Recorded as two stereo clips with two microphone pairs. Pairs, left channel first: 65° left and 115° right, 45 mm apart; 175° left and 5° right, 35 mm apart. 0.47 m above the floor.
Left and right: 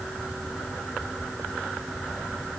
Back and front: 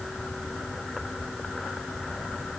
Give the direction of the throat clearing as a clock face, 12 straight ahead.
I don't hear throat clearing.